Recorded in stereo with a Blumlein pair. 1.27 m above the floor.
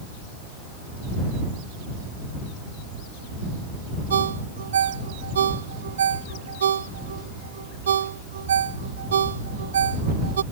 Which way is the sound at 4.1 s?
65° right.